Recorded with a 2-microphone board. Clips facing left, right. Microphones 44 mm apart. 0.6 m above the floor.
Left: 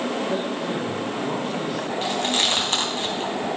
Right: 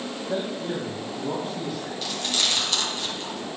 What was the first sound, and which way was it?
A man speaking, 5° right (ahead or behind).